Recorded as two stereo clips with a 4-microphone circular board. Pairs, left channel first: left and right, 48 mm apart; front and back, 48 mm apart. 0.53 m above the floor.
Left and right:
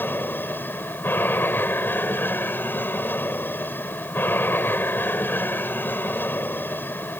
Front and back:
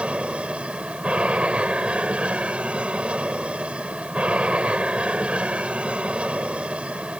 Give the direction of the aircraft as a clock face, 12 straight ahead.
8 o'clock.